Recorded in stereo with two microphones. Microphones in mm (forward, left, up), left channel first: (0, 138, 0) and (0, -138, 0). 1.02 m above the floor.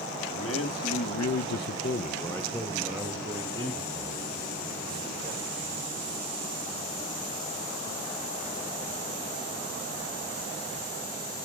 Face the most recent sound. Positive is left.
turn(degrees=-25)  # may be behind; listen again after turning